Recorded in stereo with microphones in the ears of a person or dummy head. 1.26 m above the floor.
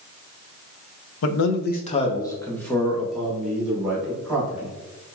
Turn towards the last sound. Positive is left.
turn(degrees=-15)  # may be behind; listen again after turning